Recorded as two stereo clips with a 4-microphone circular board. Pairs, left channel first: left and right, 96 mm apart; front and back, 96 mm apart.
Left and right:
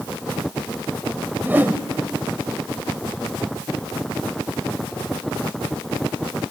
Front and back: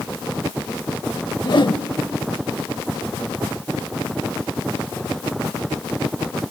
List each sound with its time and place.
1.4 s a whoosh: 25° right, 0.7 m